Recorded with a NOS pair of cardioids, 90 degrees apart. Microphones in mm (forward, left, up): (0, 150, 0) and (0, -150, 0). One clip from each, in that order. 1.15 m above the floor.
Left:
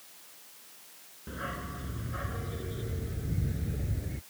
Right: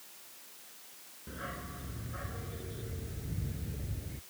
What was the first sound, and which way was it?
A dog barking, 30° left.